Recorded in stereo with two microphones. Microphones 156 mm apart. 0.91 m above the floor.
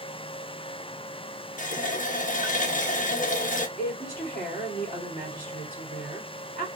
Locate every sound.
1.6 s a running tap: 55° left (ahead or behind), 0.5 m
3.8 s a woman speaking: 60° left (ahead or behind), 2 m